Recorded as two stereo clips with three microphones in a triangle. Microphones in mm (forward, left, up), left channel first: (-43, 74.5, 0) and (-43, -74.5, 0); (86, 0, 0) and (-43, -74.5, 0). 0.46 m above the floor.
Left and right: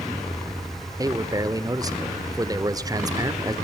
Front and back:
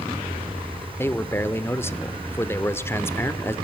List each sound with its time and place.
1.0 s a man speaking: 40° right, 0.9 m